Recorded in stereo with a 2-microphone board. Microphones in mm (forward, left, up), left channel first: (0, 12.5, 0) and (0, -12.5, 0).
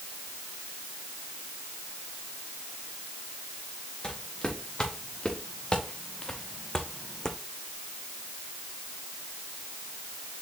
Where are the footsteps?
35° left (ahead or behind), 2.5 m; by 7.4 s 20° left (ahead or behind), 0.7 m.